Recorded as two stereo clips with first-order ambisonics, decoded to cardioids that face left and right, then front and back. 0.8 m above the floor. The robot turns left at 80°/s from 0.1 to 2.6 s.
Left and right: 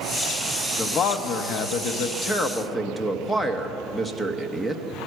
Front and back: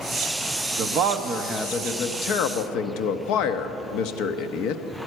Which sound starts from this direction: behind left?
A man speaking, at 0.8 s.